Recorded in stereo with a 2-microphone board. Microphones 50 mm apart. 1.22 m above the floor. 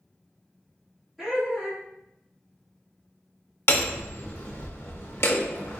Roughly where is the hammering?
Left.